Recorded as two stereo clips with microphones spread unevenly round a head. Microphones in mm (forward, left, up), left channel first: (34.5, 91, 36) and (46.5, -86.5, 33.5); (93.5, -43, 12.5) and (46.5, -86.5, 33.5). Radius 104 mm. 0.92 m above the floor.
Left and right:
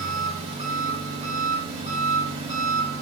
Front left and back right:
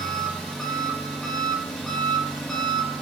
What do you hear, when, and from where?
0.0 s an engine running: 35° right, 3.5 m